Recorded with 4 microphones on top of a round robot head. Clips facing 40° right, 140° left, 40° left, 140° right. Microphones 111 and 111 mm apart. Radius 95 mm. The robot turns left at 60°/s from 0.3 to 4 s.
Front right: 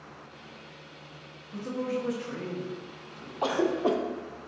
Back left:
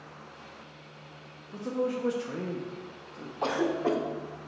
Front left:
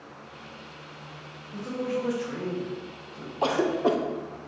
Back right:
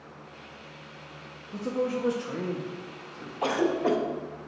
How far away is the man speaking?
About 0.6 m.